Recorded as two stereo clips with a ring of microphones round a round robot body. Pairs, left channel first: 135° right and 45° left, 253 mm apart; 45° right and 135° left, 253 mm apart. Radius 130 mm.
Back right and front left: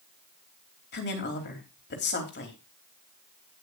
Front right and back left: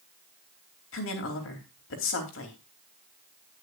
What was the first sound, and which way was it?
A woman speaking, 85° right.